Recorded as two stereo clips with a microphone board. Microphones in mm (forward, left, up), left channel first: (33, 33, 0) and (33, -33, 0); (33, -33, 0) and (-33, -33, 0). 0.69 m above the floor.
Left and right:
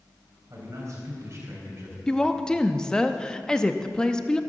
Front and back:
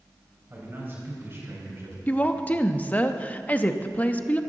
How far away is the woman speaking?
About 0.6 m.